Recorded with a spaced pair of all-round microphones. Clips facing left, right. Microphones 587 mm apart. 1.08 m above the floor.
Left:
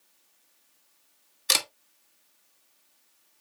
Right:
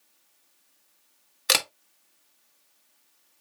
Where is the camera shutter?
75° right (ahead or behind), 0.9 m.